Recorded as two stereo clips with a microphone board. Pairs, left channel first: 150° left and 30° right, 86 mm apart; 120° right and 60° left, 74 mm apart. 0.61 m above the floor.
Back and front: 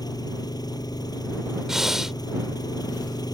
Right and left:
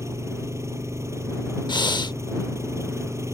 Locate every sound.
0.0 s an engine running: 110° left
1.7 s breathing: 115° right